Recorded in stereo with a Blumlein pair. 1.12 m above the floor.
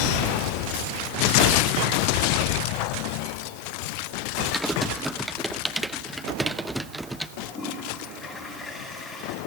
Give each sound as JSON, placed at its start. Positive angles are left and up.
{"t": 4.5, "sound": "typing on a keyboard", "azimuth_deg": 0, "distance_m": 0.9}
{"t": 7.4, "sound": "a toilet flushing", "azimuth_deg": 15, "distance_m": 9.0}